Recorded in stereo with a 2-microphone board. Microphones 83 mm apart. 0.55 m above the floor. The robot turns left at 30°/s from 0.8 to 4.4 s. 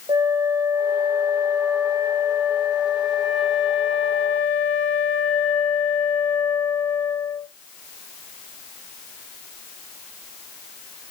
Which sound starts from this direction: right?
A flute, at 0.1 s.